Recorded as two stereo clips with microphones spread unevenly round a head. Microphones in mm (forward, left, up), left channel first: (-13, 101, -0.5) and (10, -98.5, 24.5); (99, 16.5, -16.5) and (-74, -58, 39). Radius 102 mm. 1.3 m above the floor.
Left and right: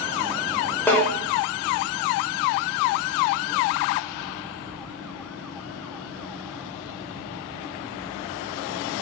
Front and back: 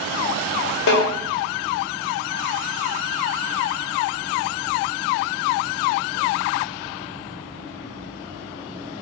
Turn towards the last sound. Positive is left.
turn(degrees=10)